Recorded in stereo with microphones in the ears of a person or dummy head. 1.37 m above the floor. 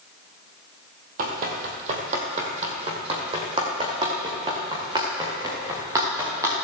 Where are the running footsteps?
45° right (ahead or behind), 1.9 m; by 6.7 s 20° right (ahead or behind), 6.5 m.